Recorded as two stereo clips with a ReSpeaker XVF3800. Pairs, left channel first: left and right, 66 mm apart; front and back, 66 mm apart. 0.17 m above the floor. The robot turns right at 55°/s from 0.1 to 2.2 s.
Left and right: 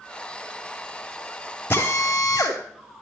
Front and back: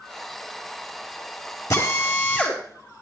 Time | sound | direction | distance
1.7 | a drill | 35° left | 3 m